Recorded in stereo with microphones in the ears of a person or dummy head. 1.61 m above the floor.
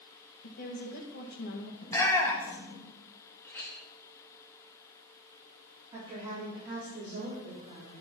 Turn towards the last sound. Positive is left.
turn(degrees=-35)  # may be behind; listen again after turning